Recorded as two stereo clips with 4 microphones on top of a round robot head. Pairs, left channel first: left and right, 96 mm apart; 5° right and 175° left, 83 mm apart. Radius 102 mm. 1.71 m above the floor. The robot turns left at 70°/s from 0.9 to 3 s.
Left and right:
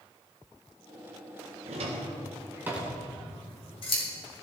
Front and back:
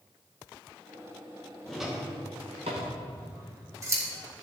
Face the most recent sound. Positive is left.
turn(degrees=120)